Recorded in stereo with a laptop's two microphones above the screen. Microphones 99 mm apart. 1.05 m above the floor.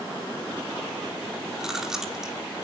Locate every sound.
1.6 s chewing: 5° right (ahead or behind), 2.0 m